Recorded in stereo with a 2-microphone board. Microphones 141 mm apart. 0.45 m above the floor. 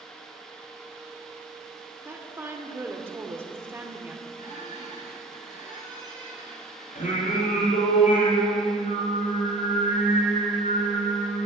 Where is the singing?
70° left (ahead or behind), 4.5 m.